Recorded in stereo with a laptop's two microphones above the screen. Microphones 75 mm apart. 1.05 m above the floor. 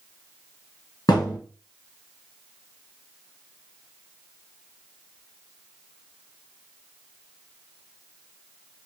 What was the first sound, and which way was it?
A thud, 65° left (ahead or behind).